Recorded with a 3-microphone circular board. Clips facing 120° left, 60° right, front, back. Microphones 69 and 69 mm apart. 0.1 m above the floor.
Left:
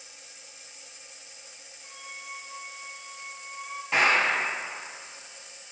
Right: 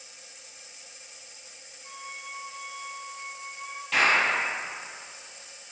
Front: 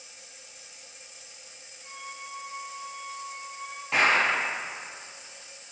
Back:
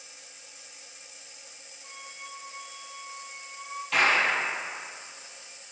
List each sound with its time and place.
1.8 s a flute: 5° left, 1.6 m
3.9 s a clap: 60° left, 3 m